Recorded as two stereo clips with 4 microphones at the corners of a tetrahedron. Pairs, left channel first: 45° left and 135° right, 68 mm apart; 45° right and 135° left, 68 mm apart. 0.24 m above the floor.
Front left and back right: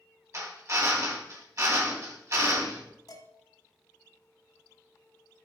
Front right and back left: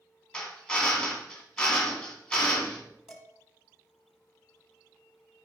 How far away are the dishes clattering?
About 1.6 m.